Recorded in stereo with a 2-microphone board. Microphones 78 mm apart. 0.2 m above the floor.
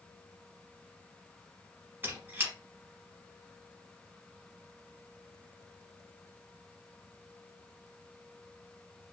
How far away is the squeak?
About 1.0 m.